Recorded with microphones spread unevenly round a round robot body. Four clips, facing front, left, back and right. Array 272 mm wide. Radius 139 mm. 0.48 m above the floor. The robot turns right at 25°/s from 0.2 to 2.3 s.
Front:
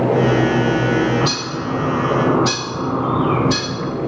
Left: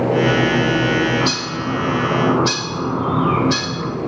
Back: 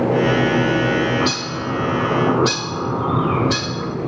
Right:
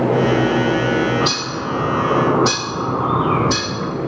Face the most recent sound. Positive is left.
turn(degrees=-130)